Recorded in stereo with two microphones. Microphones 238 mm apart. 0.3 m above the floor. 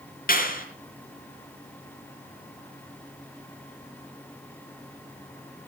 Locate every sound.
0.3 s a clap: 40° left (ahead or behind), 4.5 m